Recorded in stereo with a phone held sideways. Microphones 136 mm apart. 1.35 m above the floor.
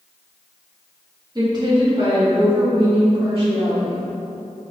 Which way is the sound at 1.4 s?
30° right (ahead or behind).